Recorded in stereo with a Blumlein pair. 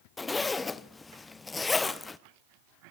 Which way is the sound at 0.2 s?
10° left.